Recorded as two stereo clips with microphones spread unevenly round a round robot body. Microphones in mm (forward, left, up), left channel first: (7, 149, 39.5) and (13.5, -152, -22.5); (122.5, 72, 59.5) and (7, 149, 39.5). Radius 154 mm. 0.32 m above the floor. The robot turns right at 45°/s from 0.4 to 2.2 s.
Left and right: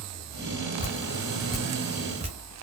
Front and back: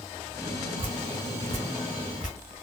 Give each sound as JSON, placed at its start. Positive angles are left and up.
{"t": 0.8, "sound": "dripping", "azimuth_deg": 155, "distance_m": 0.9}